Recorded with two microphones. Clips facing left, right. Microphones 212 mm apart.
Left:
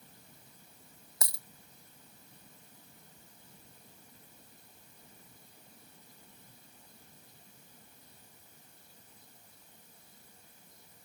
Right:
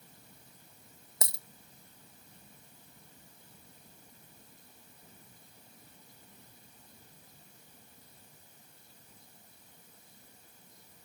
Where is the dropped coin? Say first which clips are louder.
Right 4 dB; 25° right (ahead or behind).